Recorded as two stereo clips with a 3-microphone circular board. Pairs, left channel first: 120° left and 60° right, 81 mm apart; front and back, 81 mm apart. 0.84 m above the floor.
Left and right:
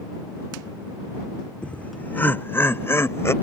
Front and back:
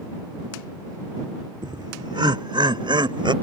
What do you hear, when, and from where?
1.6 s laughter: 165° right; by 3.3 s 175° left